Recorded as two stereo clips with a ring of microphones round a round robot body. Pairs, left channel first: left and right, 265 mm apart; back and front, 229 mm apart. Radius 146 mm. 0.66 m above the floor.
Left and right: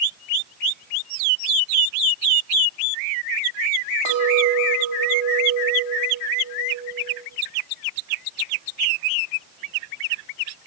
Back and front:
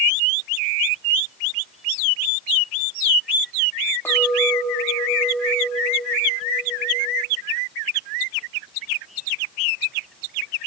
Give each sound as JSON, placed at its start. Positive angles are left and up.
{"t": 4.0, "sound": "a clink", "azimuth_deg": -100, "distance_m": 2.5}